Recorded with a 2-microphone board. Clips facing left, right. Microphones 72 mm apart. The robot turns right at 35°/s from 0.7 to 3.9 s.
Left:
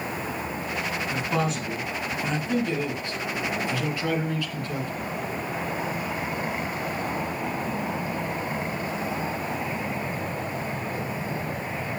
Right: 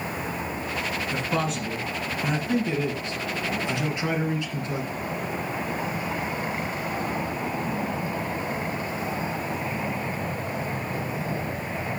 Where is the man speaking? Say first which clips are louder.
Left 1 dB; 5° left (ahead or behind), 1.6 m; by 4.9 s 20° right (ahead or behind), 1.6 m.